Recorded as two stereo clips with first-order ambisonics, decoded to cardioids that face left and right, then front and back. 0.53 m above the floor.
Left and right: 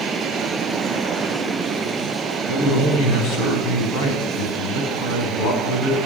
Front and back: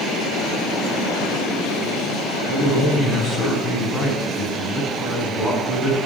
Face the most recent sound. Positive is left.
turn(degrees=80)